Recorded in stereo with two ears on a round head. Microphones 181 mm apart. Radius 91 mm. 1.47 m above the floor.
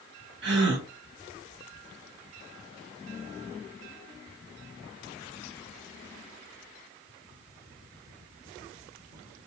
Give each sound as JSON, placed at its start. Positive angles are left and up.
{"t": 0.4, "sound": "a gasp", "side_deg": -65, "distance_m": 1.1}